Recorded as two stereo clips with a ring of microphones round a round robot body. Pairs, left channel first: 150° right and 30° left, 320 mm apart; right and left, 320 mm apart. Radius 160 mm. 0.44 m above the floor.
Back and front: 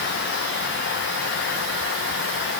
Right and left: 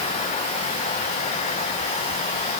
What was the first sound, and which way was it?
Only background noise.